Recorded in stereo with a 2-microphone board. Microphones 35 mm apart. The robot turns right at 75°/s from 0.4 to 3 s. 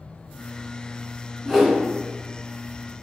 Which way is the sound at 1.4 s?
Centre (ahead or behind).